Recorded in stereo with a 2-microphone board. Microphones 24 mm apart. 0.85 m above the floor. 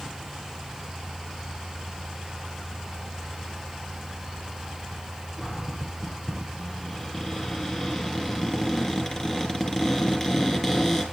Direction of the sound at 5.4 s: 20° left (ahead or behind).